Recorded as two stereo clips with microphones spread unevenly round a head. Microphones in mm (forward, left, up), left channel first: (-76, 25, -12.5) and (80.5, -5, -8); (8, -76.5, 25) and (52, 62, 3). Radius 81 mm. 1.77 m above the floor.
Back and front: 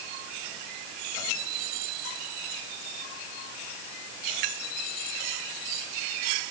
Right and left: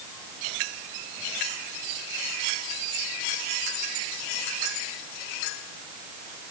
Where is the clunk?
No clunk in this recording.